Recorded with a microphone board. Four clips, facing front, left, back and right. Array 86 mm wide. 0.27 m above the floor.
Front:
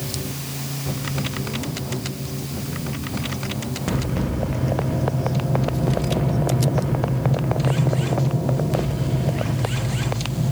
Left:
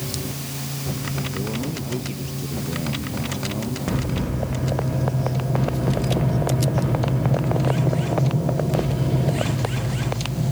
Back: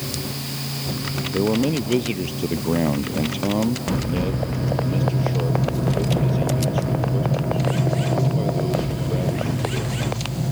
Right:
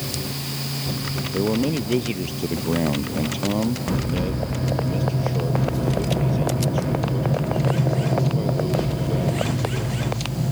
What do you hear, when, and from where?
1.3 s a man speaking: 150° right